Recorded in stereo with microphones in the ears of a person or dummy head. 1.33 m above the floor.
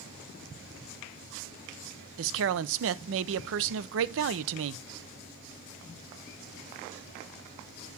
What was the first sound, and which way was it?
A man speaking, 75° right (ahead or behind).